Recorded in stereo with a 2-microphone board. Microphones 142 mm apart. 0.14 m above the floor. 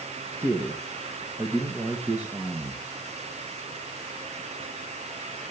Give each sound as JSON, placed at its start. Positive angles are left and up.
{"t": 0.3, "sound": "a man speaking", "side_deg": -15, "distance_m": 2.5}